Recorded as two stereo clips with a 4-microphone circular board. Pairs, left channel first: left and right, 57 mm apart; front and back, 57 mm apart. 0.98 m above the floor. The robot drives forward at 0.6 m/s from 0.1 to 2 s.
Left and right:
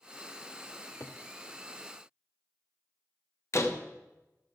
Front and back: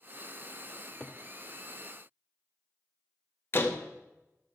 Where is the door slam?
50° left, 1.1 m.